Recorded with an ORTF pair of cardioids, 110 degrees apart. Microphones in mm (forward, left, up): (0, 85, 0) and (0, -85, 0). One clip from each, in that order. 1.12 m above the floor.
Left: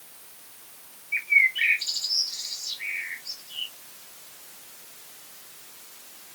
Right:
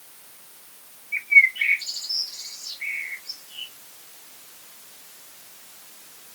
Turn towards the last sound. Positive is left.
turn(degrees=30)